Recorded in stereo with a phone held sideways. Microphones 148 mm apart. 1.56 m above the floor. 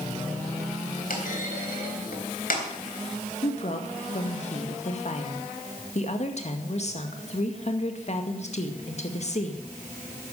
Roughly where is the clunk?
Left.